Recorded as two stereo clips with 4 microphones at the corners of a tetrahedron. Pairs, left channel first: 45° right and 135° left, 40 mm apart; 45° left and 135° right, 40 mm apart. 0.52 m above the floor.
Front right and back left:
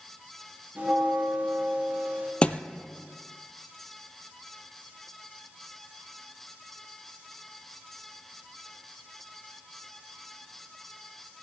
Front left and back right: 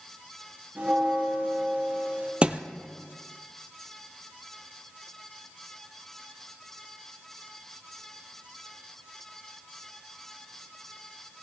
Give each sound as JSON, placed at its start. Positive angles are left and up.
{"t": 0.8, "sound": "a bell", "azimuth_deg": 175, "distance_m": 5.0}
{"t": 2.4, "sound": "a thud", "azimuth_deg": -95, "distance_m": 0.6}